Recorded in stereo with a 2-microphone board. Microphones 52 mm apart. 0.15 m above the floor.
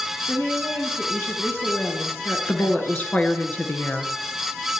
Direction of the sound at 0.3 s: 40° left (ahead or behind).